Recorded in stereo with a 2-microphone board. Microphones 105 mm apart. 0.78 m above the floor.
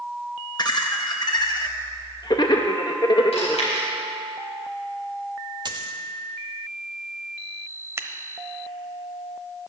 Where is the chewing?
85° left, 4 m.